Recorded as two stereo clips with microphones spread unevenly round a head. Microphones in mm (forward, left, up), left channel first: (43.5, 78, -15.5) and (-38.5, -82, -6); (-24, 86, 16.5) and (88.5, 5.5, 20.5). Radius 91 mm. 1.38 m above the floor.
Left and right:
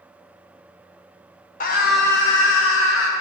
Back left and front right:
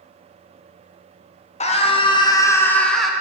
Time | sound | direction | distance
1.6 | a scream | 105° left | 1.0 m